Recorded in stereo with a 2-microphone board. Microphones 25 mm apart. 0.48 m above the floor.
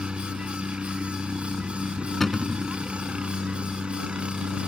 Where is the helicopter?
50° right (ahead or behind).